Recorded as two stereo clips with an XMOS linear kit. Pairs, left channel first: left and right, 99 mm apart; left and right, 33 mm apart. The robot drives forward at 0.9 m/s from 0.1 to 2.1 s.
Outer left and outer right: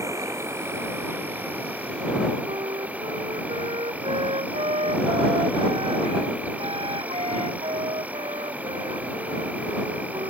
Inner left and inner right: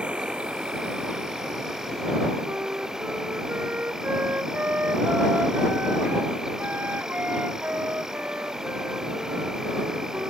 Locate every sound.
0.0 s an insect: 30° right (ahead or behind); by 10.3 s 15° right (ahead or behind)
2.5 s a flute: 70° right (ahead or behind)